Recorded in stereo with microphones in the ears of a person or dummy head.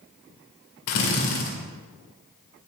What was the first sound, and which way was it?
A drill, 70° left (ahead or behind).